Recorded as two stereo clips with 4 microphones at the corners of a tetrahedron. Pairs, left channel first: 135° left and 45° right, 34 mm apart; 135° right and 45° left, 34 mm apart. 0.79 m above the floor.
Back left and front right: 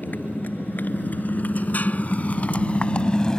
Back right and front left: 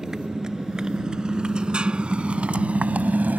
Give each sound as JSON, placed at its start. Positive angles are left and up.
{"t": 0.0, "sound": "a motorcycle", "azimuth_deg": 115}